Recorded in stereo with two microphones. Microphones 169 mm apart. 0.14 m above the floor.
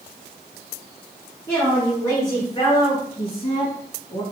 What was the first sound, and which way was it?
A woman speaking, 10° left (ahead or behind).